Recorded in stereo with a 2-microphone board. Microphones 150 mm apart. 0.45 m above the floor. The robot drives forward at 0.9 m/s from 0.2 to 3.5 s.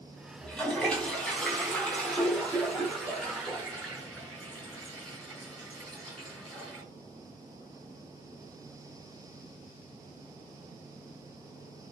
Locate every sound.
0.4 s a toilet flushing: 5° left (ahead or behind), 4 m